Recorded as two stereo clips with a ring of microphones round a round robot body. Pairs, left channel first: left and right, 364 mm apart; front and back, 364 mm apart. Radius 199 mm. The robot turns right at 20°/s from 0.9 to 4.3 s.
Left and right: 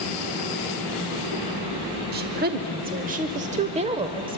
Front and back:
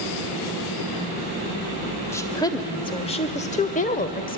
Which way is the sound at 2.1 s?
75° right.